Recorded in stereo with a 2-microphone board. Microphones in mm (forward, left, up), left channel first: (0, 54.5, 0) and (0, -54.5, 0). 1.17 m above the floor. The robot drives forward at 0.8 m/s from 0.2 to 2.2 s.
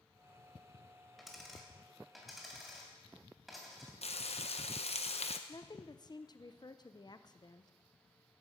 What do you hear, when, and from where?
1.2 s a dropped coin: centre (ahead or behind), 2.0 m
4.0 s frying: 70° left (ahead or behind), 0.9 m
5.5 s a woman speaking: 40° left (ahead or behind), 0.6 m